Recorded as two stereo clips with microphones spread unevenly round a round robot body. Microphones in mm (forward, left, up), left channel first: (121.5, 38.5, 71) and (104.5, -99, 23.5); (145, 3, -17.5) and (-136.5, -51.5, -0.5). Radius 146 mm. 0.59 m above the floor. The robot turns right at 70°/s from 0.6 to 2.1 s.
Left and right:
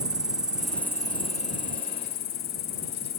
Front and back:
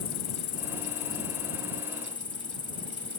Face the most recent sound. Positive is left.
turn(degrees=85)